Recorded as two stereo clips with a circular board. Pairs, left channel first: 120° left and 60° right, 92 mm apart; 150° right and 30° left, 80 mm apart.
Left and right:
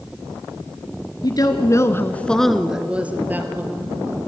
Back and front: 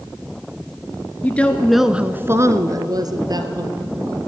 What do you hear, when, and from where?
1.2 s a woman speaking: 145° left, 1.7 m; by 4.2 s straight ahead, 3.5 m